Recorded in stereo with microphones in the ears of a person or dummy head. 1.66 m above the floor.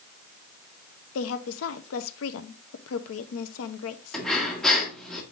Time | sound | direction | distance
1.1 | a woman speaking | 85° left | 0.9 m
4.1 | breathing | centre (ahead or behind) | 1.7 m